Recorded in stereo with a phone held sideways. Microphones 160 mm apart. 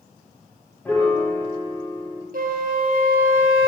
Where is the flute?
65° right (ahead or behind), 1.1 m.